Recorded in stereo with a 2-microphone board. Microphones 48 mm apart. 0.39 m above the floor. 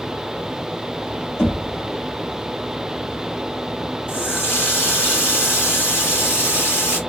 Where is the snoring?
I don't hear snoring.